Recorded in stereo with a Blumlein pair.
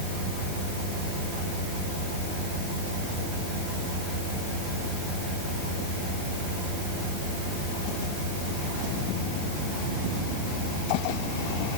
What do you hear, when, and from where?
Only background noise.